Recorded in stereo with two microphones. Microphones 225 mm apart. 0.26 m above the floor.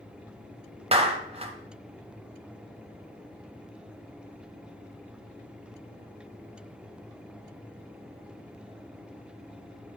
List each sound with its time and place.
0.9 s a clap: 25° right (ahead or behind), 1.1 m